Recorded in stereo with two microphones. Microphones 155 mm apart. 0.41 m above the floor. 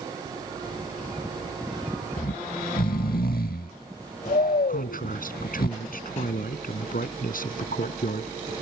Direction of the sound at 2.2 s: 75° left (ahead or behind).